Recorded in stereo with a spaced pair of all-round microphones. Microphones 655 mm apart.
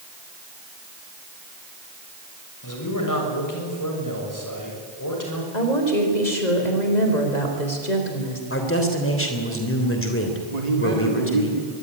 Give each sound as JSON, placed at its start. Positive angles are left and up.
{"t": 2.6, "sound": "a man speaking", "side_deg": 25, "distance_m": 7.0}
{"t": 5.5, "sound": "a woman speaking", "side_deg": 80, "distance_m": 4.5}
{"t": 8.5, "sound": "a man speaking", "side_deg": 20, "distance_m": 3.5}
{"t": 10.5, "sound": "a man speaking", "side_deg": -65, "distance_m": 3.0}